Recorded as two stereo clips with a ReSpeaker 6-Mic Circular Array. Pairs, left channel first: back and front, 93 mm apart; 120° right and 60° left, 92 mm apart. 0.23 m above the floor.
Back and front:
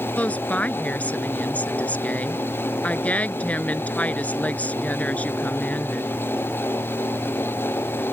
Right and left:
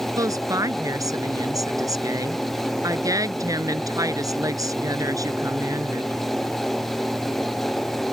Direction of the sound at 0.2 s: 105° left.